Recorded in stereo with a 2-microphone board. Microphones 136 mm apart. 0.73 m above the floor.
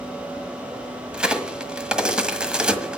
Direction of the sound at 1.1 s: 5° right (ahead or behind).